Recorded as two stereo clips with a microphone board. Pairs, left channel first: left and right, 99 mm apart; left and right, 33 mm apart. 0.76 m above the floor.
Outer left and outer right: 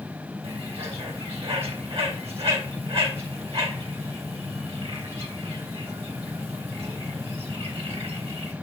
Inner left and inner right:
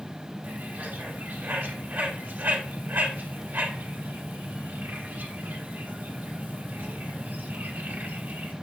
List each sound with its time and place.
0.4 s a bird: 75° right (ahead or behind), 3 m